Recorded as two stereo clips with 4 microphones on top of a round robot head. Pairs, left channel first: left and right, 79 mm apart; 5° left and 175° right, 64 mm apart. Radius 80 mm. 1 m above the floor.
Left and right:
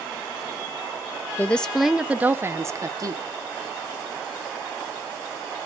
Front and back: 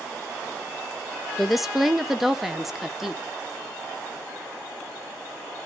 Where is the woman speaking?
100° left, 0.7 m; by 3.2 s 90° right, 1.1 m.